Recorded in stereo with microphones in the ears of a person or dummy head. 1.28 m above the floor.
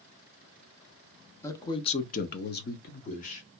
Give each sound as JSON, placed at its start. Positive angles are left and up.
{"t": 1.4, "sound": "a man speaking", "side_deg": 10, "distance_m": 0.6}